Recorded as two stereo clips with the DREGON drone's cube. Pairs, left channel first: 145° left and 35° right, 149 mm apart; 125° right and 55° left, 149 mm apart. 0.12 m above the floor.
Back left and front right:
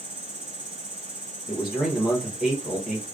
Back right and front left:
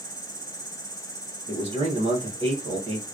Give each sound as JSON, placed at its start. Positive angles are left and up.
{"t": 0.0, "sound": "an insect", "azimuth_deg": -165, "distance_m": 1.5}
{"t": 1.5, "sound": "a man speaking", "azimuth_deg": 60, "distance_m": 1.6}